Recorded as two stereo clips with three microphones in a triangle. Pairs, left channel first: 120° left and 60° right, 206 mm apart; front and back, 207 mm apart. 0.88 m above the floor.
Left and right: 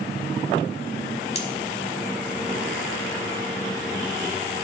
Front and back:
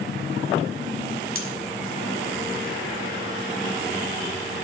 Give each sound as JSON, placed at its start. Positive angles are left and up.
{"t": 1.4, "sound": "cutlery clinking", "azimuth_deg": 180, "distance_m": 1.7}